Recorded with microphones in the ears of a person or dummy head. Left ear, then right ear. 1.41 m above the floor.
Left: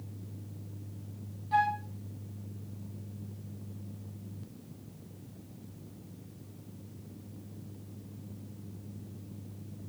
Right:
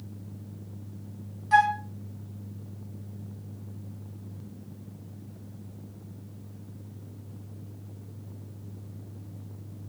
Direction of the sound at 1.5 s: 50° right (ahead or behind).